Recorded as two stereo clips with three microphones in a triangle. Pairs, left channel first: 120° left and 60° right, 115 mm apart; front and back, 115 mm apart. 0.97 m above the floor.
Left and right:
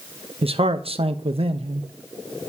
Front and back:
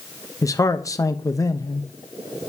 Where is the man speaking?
55° right, 0.7 m.